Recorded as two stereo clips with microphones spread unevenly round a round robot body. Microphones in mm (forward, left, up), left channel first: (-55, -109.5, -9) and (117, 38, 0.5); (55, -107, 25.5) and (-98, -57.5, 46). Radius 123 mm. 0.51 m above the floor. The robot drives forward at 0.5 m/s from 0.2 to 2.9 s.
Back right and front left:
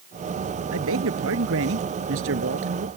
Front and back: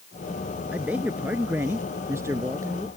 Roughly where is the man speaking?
Left.